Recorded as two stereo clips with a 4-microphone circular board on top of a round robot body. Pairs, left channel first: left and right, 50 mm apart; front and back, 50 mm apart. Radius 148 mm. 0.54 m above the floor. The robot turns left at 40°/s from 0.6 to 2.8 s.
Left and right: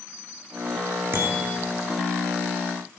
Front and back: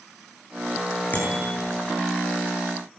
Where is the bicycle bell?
55° right, 8.5 m; by 1.5 s 70° right, 8.5 m.